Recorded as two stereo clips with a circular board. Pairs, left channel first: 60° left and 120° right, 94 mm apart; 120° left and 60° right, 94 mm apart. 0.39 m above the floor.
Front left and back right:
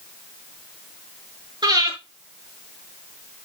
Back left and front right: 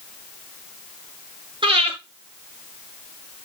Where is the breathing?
85° right, 6.5 m.